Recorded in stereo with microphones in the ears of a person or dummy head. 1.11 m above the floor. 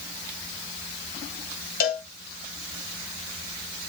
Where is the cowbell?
50° left (ahead or behind), 3.5 m.